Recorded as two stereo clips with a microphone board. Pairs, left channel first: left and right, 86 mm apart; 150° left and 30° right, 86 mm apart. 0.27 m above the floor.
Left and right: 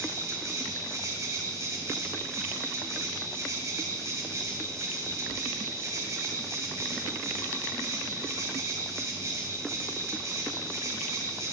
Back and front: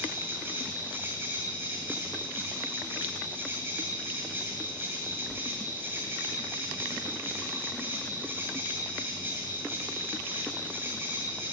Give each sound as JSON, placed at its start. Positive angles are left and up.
{"t": 0.0, "sound": "an insect", "azimuth_deg": -80, "distance_m": 2.0}